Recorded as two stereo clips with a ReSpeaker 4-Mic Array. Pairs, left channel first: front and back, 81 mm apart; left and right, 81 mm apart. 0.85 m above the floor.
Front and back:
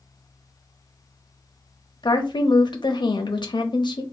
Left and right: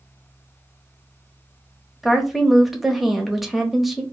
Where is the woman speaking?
Straight ahead, 0.7 m.